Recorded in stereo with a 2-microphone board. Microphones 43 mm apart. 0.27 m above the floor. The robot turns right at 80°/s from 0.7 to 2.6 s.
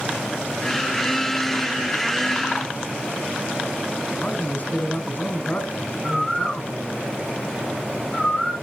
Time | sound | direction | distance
4.2 | a man speaking | 40° left (ahead or behind) | 3 m
6.0 | a bird | 20° left (ahead or behind) | 7.5 m